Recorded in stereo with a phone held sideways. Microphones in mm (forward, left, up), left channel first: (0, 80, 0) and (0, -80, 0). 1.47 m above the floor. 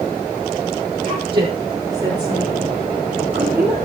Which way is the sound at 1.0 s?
35° right (ahead or behind).